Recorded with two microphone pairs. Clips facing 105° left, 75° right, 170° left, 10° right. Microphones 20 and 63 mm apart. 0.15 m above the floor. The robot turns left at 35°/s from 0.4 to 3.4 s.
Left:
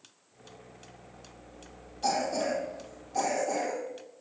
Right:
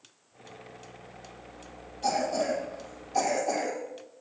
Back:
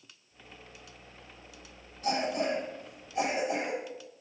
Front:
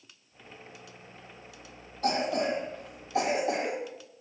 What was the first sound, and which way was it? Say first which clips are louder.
A cough: right 1 dB, front 2 dB; 20° left.